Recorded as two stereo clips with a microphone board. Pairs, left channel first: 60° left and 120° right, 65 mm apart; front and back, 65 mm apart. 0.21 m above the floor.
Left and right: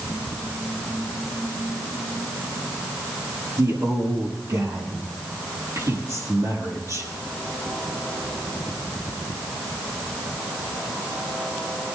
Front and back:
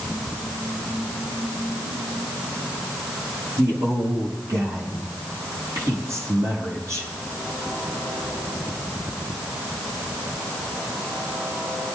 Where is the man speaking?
145° right, 5 m.